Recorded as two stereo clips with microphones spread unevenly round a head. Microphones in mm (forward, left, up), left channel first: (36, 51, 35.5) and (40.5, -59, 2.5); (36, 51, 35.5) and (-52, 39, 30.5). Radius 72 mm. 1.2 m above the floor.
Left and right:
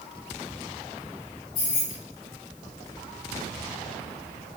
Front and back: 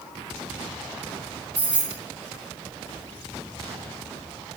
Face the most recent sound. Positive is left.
turn(degrees=115)